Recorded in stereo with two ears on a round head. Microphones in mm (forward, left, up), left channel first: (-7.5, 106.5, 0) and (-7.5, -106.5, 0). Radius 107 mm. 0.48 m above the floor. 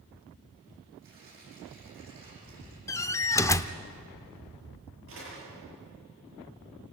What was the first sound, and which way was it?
Tearing paper, 40° right (ahead or behind).